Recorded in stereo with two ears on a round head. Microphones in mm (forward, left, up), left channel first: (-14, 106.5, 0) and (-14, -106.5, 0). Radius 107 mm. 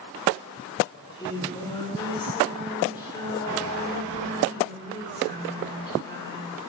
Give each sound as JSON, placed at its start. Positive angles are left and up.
{"t": 0.9, "sound": "singing", "side_deg": 15, "distance_m": 6.0}